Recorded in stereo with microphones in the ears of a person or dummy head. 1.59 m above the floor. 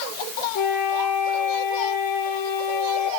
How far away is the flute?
About 6.5 m.